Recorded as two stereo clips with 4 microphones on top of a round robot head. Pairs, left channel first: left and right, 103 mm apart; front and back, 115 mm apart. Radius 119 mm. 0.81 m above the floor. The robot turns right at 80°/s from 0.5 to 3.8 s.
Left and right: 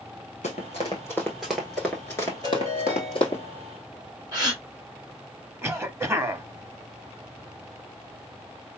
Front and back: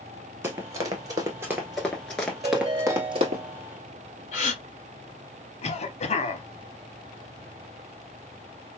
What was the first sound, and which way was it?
Running footsteps, 110° left.